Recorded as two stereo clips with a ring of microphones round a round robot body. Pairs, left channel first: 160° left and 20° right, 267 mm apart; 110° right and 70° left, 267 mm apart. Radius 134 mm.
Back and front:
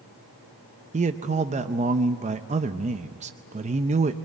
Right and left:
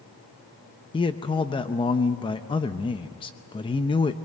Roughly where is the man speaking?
Ahead right.